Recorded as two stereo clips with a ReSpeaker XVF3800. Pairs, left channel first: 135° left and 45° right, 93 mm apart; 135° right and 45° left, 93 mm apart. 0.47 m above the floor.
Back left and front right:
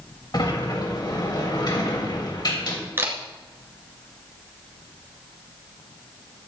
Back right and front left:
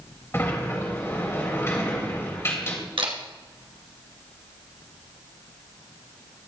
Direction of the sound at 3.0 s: 20° left.